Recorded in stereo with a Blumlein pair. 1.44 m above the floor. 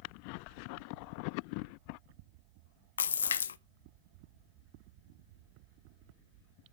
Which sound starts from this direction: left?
A splash, at 3.0 s.